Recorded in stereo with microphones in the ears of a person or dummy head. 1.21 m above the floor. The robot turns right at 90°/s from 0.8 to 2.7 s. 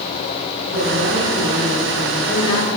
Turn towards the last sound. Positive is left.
turn(degrees=45)